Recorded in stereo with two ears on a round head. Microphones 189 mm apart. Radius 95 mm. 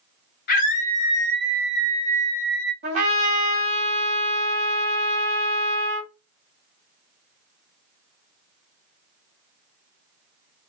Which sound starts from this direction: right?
A trumpet, at 2.8 s.